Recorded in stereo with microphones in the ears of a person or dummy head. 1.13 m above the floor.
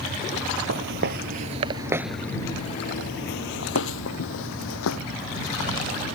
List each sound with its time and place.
0.7 s footsteps: 55° right (ahead or behind); by 5.0 s 70° left (ahead or behind)